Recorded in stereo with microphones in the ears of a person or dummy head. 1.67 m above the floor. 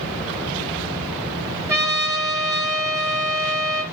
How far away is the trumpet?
About 0.8 m.